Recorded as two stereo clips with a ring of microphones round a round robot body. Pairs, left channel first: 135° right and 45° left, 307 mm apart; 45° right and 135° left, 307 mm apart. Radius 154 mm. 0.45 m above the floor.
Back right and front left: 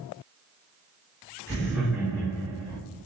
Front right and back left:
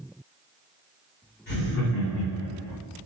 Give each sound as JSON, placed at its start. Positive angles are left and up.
{"t": 1.5, "sound": "laughter", "azimuth_deg": -65, "distance_m": 0.8}